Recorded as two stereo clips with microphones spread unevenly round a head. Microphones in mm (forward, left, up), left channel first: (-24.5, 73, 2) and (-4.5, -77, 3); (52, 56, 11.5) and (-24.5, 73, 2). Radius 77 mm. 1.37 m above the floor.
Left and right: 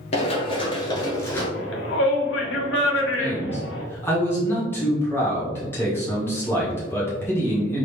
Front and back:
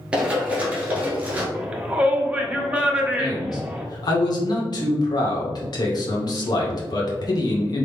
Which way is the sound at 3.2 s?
20° left.